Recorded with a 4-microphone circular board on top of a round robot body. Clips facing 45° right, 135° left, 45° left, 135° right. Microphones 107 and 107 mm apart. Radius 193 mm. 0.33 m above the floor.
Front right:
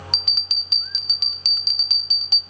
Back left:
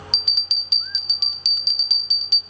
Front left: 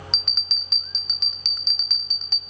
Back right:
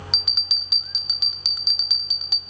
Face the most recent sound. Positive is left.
turn(degrees=-55)